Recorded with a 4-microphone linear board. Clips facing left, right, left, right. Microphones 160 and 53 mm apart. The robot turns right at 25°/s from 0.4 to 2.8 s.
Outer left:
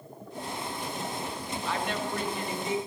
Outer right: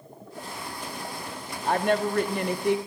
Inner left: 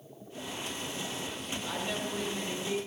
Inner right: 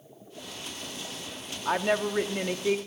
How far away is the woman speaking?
About 1.0 m.